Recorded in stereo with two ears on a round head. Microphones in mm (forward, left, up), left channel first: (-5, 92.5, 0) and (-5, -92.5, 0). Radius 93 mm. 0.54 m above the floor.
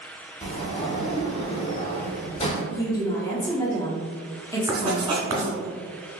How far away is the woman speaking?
About 0.7 m.